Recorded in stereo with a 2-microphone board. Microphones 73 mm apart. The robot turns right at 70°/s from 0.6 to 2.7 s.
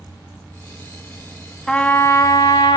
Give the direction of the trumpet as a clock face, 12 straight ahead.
12 o'clock.